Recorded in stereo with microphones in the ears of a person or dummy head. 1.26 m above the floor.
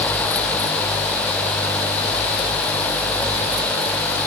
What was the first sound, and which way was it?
Only background noise.